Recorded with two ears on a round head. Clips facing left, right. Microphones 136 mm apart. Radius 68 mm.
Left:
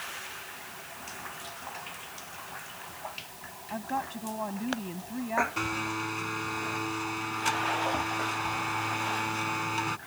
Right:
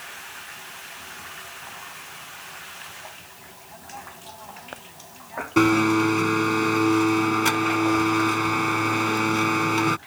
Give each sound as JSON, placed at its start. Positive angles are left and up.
{"t": 3.7, "sound": "a woman speaking", "side_deg": 70}
{"t": 5.6, "sound": "a blender", "side_deg": -75}